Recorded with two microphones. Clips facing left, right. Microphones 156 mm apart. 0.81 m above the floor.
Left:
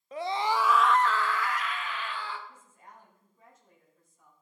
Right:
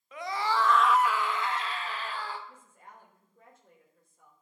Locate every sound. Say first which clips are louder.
0.1 s a scream: left 2 dB; 35° left (ahead or behind), 0.7 m; by 2.4 s 45° right (ahead or behind), 1.2 m
2.5 s a woman speaking: right 1 dB; 60° right (ahead or behind), 3.5 m